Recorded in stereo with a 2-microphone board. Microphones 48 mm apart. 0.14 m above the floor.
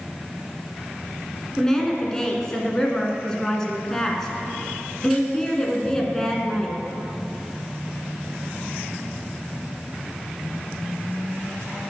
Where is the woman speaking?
10° left (ahead or behind), 1.5 m.